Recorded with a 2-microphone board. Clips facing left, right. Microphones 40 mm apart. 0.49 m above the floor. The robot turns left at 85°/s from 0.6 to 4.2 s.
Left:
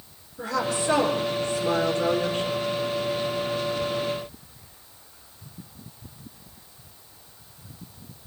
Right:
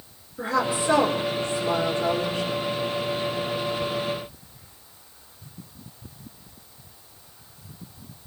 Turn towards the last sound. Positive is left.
turn(degrees=-100)